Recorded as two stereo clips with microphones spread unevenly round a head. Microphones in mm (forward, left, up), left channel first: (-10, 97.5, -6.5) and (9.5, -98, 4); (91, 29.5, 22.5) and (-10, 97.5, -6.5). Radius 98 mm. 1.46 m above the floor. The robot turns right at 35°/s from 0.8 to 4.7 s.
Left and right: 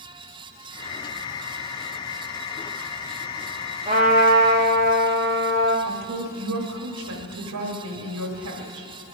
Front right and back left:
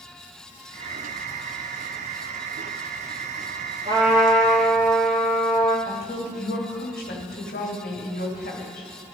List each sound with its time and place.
3.9 s a trumpet: 140° right, 1.3 m; by 5.8 s 110° right, 1.3 m
5.8 s a woman speaking: 75° right, 1.4 m